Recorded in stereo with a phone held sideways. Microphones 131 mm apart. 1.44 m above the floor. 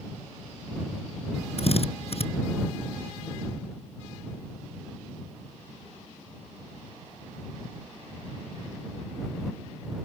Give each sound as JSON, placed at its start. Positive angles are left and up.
{"t": 1.6, "sound": "a drill", "side_deg": 50}